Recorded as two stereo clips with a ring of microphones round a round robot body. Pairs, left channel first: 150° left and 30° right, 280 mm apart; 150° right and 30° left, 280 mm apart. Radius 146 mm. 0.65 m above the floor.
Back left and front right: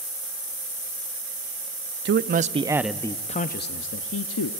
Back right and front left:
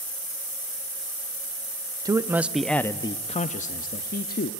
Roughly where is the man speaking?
Ahead right.